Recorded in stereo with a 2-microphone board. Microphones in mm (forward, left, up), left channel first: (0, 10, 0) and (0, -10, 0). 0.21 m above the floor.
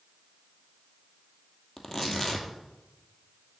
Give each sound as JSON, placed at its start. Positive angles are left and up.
{"t": 1.8, "sound": "tearing paper", "side_deg": 20, "distance_m": 1.3}